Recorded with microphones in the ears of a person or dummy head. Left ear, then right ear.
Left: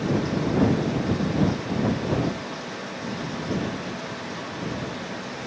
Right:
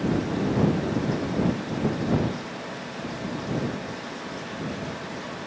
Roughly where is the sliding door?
I don't hear a sliding door.